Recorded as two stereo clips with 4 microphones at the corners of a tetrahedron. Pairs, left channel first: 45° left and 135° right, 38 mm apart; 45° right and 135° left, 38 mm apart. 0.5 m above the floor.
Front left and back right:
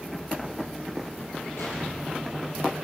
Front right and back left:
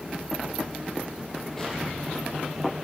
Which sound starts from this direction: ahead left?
An explosion, at 1.6 s.